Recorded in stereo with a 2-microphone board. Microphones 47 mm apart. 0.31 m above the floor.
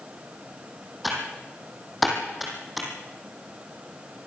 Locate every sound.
1.0 s typing on a keyboard: 5° right (ahead or behind), 5 m